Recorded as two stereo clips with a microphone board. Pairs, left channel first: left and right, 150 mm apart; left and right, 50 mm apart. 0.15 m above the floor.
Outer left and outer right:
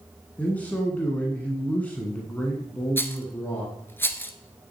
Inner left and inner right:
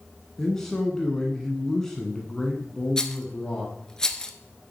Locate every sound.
0.4 s a man speaking: 10° left (ahead or behind), 1.3 m
3.0 s a rattle: 15° left (ahead or behind), 0.8 m